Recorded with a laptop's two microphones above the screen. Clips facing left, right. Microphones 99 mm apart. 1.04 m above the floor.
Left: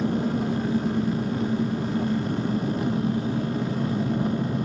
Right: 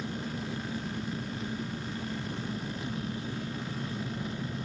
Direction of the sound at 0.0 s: 60° left (ahead or behind).